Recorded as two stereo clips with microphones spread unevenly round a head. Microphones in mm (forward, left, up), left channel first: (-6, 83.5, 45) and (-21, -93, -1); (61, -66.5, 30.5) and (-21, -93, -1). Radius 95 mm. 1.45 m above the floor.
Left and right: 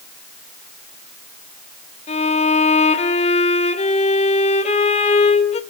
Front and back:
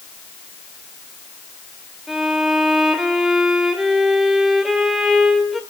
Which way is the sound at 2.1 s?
90° left.